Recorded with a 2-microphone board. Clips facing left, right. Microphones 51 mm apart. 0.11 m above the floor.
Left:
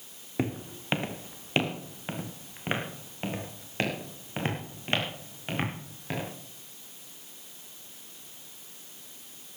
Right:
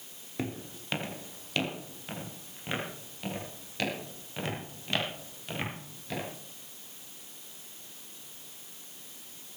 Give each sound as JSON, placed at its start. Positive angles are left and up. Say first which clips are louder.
{"t": 0.4, "sound": "footsteps", "louder": "left 5 dB", "side_deg": 20, "distance_m": 2.5}